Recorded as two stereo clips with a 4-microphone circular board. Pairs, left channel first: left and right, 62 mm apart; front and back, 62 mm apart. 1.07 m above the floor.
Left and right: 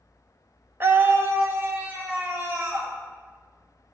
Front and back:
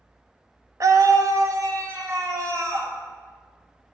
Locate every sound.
0.8 s a scream: 145° right, 0.5 m; by 2.9 s 140° right, 2 m